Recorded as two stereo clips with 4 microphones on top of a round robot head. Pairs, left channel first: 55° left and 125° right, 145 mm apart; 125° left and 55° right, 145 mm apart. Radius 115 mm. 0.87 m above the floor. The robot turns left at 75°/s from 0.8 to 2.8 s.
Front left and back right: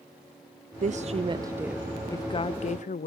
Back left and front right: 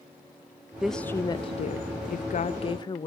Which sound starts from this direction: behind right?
A woman speaking, at 0.8 s.